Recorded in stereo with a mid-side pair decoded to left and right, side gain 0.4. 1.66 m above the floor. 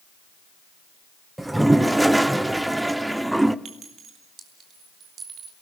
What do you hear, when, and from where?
1.4 s a toilet flushing: 10° right, 0.9 m
3.6 s a clink: 65° right, 3 m